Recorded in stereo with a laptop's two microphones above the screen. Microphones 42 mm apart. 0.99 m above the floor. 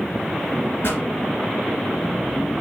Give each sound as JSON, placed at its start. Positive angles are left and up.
{"t": 0.8, "sound": "a pop", "side_deg": 65, "distance_m": 3.5}